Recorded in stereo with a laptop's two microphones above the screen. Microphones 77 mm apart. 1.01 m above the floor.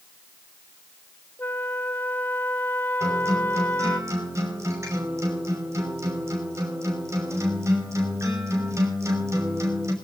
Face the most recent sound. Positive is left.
turn(degrees=-40)  # may be behind; listen again after turning